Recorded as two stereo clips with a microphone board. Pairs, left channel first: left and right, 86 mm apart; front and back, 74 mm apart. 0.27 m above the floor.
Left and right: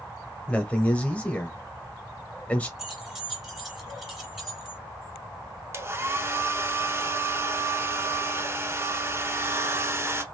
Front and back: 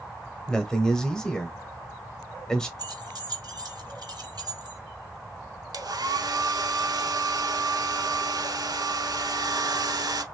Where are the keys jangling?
175° right, 2 m.